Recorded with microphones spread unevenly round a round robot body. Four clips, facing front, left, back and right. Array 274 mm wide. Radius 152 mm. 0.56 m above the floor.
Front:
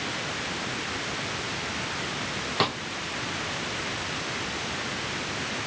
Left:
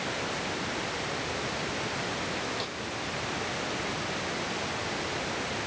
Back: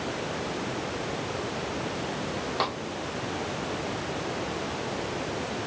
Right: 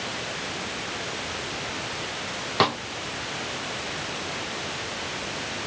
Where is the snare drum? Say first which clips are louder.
Right 14 dB, front 3 dB; 75° right.